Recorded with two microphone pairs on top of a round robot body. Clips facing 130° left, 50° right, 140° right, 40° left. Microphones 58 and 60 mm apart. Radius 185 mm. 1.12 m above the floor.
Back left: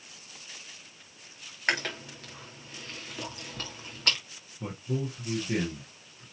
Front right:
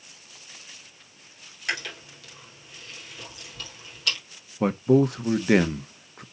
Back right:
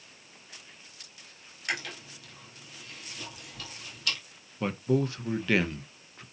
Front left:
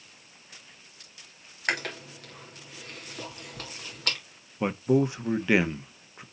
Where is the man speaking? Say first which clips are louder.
Front right 14 dB, front left 4 dB; 30° right, 1.0 m.